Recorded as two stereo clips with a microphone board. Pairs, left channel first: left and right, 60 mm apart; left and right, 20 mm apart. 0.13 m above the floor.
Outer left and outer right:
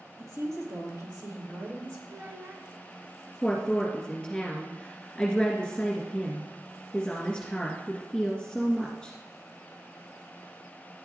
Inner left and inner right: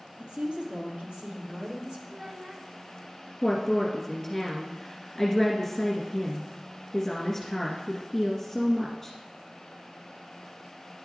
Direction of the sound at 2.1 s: 35° right (ahead or behind).